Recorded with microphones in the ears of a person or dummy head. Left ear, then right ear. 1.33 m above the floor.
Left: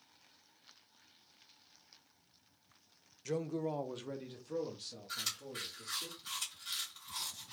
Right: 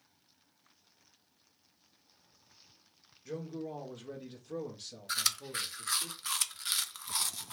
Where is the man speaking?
65° left (ahead or behind), 0.6 m; by 6.1 s 25° right (ahead or behind), 1.5 m.